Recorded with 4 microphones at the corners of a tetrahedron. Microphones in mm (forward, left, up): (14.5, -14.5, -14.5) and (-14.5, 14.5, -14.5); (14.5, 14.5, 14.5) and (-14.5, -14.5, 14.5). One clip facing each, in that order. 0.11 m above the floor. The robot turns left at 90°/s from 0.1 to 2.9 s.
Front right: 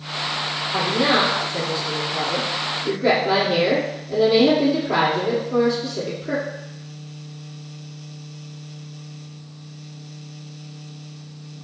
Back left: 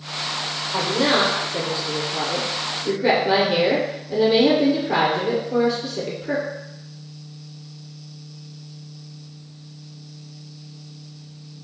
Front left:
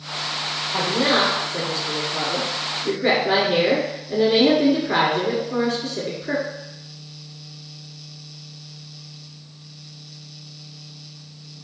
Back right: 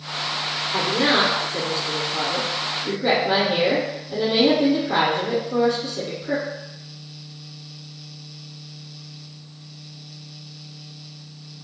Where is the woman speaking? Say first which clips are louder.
Even, even; 115° right, 1.5 m; by 6.4 s 50° left, 1.5 m.